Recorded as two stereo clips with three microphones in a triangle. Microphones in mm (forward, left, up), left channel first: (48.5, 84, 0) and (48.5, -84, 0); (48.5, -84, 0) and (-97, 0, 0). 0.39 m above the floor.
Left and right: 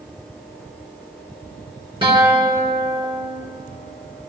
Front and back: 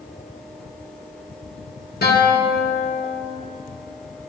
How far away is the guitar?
About 4 m.